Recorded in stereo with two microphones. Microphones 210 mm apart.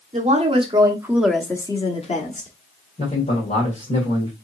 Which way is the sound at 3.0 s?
35° left (ahead or behind).